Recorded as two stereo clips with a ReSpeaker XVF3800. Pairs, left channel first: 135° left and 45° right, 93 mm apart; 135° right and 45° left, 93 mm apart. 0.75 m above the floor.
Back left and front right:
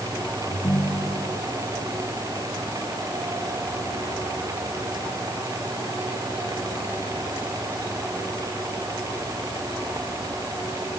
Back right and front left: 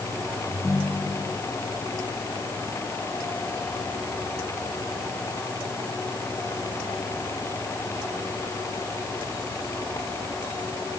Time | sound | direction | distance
0.5 | a ringtone | straight behind | ?